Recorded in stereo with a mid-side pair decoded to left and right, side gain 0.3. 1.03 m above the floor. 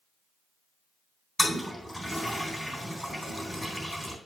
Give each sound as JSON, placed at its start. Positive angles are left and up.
{"t": 1.4, "sound": "a toilet flushing", "azimuth_deg": 0, "distance_m": 3.5}